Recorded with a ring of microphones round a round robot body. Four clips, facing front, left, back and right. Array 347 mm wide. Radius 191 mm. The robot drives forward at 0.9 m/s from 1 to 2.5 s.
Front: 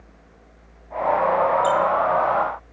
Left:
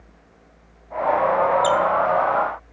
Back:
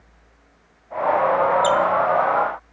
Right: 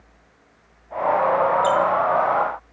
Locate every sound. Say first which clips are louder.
1.6 s a squeak: even, back 1 dB; 135° left, 1.4 m; by 1.8 s 140° left, 1.5 m